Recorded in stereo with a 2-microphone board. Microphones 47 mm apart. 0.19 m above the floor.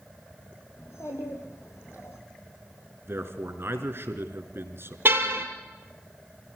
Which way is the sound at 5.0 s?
50° right (ahead or behind).